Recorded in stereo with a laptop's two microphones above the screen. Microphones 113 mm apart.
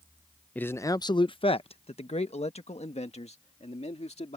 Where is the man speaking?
10° left (ahead or behind); by 4.4 s 70° left (ahead or behind).